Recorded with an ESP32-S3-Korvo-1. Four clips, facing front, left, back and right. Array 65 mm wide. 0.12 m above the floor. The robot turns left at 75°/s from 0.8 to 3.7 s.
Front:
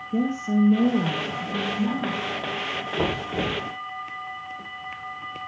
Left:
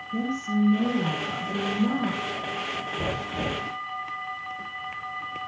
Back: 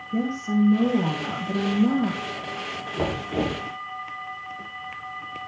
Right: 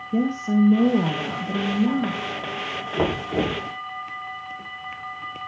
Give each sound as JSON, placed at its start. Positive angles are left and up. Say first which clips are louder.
{"t": 0.1, "sound": "a woman speaking", "louder": "right 6 dB, front 1 dB", "azimuth_deg": -75, "distance_m": 3.0}
{"t": 3.0, "sound": "knocking", "louder": "right 10 dB, back 1 dB", "azimuth_deg": -90, "distance_m": 7.0}